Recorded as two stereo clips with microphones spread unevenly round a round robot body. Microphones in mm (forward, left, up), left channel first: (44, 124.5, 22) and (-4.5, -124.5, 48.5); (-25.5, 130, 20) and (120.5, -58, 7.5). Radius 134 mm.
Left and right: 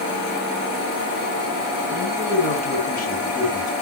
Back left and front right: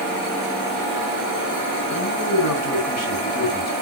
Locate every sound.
1.9 s a man speaking: 135° left, 4 m